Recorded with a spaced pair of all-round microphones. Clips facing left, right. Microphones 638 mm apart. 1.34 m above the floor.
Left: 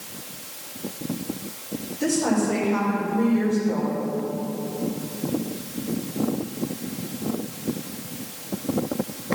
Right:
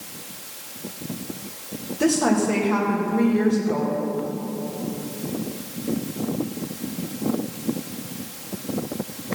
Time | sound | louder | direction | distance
2.0 | a woman speaking | right 3 dB | 80° right | 2.0 m